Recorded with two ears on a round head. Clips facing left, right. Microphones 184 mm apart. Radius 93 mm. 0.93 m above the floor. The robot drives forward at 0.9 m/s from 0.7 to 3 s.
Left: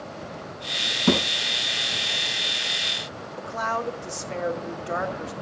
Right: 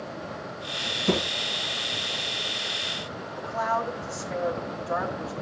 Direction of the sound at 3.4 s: 35° left (ahead or behind).